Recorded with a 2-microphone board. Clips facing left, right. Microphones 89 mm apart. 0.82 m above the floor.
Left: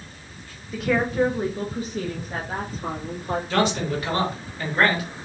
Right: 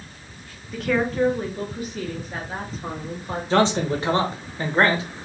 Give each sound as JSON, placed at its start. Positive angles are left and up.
{"t": 0.7, "sound": "a woman speaking", "side_deg": 0, "distance_m": 1.0}
{"t": 3.5, "sound": "a man speaking", "side_deg": -25, "distance_m": 1.0}